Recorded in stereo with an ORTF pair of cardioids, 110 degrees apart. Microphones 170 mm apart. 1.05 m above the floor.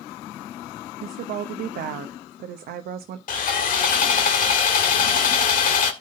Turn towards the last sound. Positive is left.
turn(degrees=55)